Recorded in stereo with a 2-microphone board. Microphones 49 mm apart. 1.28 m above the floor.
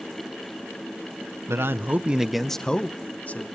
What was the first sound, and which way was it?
A man speaking, 65° right (ahead or behind).